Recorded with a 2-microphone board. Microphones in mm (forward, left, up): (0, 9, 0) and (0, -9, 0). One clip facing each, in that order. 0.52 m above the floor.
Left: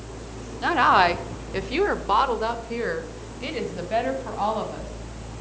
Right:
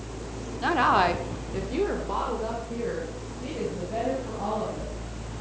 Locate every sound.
0.6 s a woman speaking: 10° left (ahead or behind), 1.3 m; by 4.9 s 70° left (ahead or behind), 4 m